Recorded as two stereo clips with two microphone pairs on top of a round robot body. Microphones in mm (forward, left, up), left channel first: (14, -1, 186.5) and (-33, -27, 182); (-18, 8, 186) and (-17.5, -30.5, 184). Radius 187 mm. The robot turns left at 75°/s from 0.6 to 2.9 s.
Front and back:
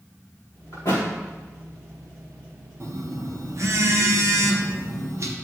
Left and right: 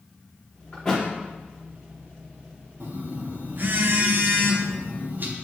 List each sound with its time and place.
0.7 s a thud: 30° left, 3.5 m; by 1.0 s 5° left, 3.5 m
2.8 s a phone buzzing: 115° right, 1.1 m; by 5.3 s 125° right, 1.1 m